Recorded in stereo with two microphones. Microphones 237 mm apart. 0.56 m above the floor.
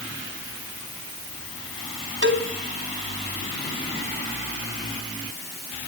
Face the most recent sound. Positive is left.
turn(degrees=-50)  # may be behind; listen again after turning